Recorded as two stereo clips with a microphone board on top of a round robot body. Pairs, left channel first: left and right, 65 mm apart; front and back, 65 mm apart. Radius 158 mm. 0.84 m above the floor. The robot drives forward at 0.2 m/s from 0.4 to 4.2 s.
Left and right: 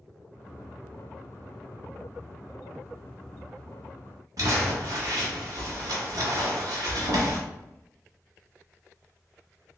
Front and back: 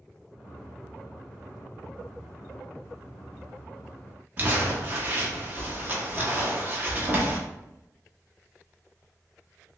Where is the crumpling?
120° right, 0.9 m.